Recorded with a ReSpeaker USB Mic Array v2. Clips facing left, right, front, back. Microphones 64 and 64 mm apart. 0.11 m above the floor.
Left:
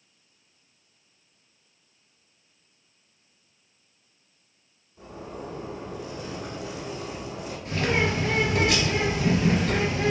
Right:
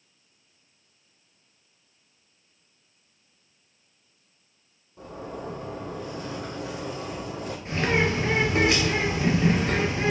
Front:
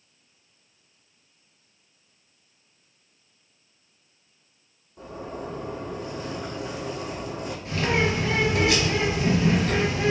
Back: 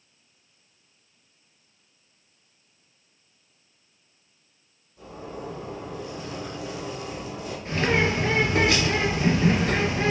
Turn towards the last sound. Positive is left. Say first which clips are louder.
# right 1 dB, back 1 dB
turn(degrees=-140)